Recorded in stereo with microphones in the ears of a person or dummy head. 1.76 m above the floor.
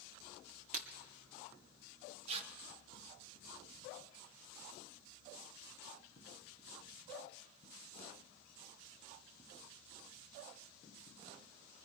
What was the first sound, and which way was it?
Breaking glass, 45° right (ahead or behind).